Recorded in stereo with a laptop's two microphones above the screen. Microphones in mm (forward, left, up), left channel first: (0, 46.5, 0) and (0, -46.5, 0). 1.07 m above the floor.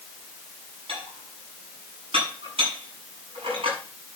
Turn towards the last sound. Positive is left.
turn(degrees=-80)